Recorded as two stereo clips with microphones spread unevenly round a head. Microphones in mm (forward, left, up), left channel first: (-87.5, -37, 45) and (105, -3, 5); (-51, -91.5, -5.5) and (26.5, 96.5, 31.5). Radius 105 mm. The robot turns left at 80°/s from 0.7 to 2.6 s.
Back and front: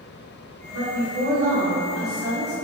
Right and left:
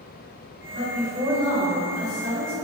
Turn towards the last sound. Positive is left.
turn(degrees=-120)